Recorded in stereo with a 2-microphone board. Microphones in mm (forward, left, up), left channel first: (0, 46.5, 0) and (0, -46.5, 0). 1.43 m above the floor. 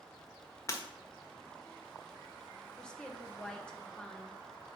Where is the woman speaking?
10° left (ahead or behind), 1.1 m.